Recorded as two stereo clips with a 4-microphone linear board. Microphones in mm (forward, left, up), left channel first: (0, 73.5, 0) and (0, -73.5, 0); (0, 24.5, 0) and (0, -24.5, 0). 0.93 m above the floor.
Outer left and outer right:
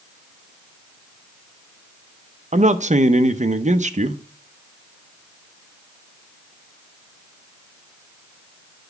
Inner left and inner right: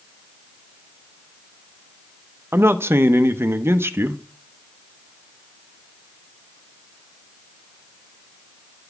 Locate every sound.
2.5 s a man speaking: 55° right (ahead or behind), 0.7 m